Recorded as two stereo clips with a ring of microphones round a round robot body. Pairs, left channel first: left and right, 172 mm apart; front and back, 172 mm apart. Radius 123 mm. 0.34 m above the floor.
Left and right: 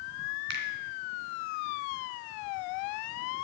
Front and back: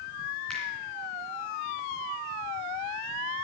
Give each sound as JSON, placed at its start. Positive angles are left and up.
{"t": 0.5, "sound": "a finger snap", "azimuth_deg": -85, "distance_m": 2.5}